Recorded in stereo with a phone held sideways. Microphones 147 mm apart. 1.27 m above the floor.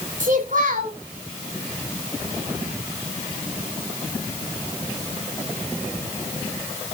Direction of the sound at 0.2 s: 65° right (ahead or behind).